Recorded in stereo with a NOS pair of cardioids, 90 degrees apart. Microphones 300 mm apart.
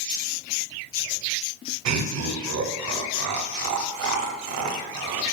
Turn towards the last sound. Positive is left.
turn(degrees=-65)